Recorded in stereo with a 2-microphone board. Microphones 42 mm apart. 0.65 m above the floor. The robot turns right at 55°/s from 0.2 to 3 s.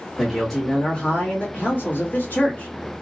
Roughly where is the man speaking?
Ahead.